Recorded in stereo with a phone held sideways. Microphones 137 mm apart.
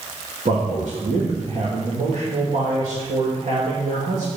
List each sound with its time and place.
0.5 s a man speaking: 80° right, 2 m